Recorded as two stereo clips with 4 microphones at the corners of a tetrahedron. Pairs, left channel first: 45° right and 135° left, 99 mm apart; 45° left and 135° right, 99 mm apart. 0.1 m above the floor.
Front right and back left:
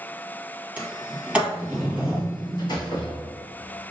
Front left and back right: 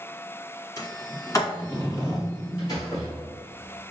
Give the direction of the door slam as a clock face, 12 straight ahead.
12 o'clock.